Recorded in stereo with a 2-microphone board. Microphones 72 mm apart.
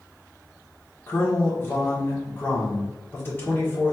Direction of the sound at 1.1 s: 30° left (ahead or behind).